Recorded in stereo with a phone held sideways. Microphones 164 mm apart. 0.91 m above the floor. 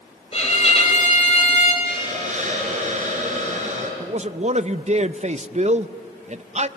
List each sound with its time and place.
0.3 s a violin: 40° left (ahead or behind), 5.5 m
1.8 s a hiss: 50° right (ahead or behind), 5 m
4.0 s a man speaking: 45° right (ahead or behind), 0.6 m